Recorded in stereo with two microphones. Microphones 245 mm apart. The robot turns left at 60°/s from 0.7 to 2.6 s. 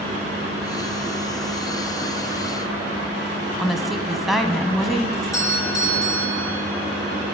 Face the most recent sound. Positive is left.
turn(degrees=15)  # may be behind; listen again after turning